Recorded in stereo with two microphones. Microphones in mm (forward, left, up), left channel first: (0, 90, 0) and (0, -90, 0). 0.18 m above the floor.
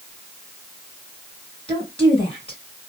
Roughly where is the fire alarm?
I don't hear a fire alarm.